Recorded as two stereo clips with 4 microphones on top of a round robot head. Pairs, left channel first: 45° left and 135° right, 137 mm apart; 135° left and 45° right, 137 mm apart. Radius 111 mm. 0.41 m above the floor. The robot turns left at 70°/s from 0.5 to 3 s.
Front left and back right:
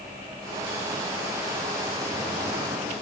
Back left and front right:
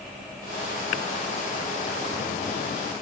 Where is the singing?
I don't hear singing.